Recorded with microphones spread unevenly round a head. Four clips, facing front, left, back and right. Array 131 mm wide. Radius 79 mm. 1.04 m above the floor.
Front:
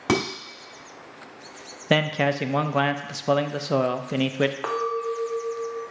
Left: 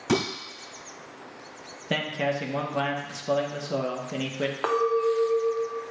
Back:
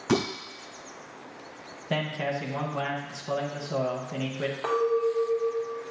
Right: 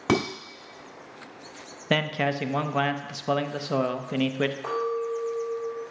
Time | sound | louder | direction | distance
0.1 | dishes clattering | right 1 dB, front 2 dB | 50° right | 1.9 m
1.9 | a man speaking | right 2 dB, front 7 dB | straight ahead | 0.6 m
4.6 | a clink | left 5 dB, back 2 dB | 65° left | 1.2 m